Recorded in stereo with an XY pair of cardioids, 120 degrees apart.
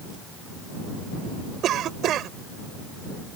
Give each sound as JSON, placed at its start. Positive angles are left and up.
{"t": 1.6, "sound": "a cough", "azimuth_deg": -60}